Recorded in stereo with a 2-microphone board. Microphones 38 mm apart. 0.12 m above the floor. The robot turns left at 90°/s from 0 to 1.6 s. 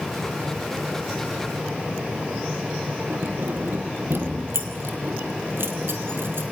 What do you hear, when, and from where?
3.1 s keys jangling: 70° right (ahead or behind), 2.5 m